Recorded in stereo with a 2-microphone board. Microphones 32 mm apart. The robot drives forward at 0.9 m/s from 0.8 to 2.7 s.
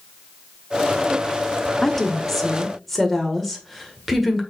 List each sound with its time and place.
1.8 s a woman speaking: 10° left (ahead or behind), 0.7 m; by 4.4 s 5° left (ahead or behind), 1.2 m